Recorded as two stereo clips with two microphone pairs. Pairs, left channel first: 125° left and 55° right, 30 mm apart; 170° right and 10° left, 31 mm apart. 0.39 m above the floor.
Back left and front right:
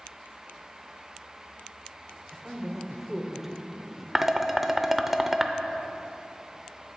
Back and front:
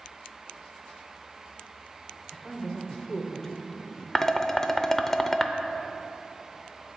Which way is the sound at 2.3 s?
125° right.